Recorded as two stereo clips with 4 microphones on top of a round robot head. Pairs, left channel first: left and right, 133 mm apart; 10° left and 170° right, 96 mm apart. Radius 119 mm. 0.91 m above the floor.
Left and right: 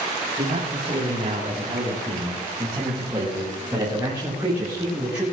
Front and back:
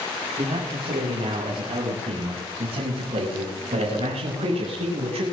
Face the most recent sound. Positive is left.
turn(degrees=-175)